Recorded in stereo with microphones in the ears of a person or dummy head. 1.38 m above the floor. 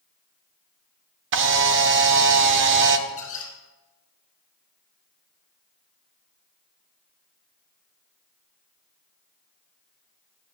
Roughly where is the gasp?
No gasp in this recording.